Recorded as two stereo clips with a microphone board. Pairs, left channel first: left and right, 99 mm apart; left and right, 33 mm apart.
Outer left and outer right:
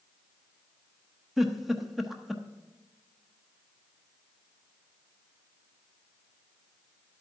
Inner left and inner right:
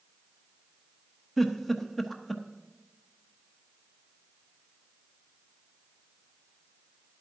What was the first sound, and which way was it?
A giggle, centre (ahead or behind).